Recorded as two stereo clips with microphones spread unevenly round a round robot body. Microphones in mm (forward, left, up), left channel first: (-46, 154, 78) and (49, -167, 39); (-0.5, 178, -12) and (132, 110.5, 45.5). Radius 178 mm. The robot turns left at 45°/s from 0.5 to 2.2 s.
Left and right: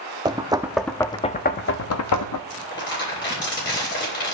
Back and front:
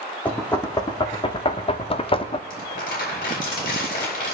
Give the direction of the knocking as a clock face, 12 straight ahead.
5 o'clock.